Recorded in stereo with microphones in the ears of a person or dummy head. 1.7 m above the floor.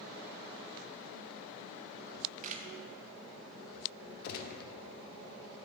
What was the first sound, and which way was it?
A camera shutter, 45° right (ahead or behind).